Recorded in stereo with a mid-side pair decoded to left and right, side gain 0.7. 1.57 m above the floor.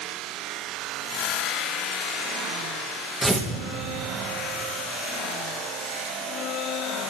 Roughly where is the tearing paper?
Ahead.